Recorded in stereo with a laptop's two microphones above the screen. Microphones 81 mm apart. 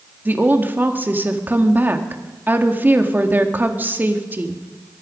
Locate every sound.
0.2 s a woman speaking: 25° right (ahead or behind), 1.8 m